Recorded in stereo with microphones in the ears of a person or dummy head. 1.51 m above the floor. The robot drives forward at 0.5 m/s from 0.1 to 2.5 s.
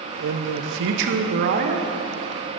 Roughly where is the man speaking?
Right.